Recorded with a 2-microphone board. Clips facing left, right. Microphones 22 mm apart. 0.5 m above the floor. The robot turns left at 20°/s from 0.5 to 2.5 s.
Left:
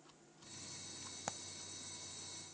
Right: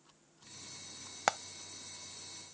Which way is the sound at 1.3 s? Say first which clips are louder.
Right 15 dB; 70° right (ahead or behind).